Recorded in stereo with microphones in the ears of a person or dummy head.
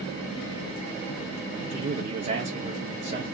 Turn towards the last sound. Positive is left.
turn(degrees=-40)  # may be behind; listen again after turning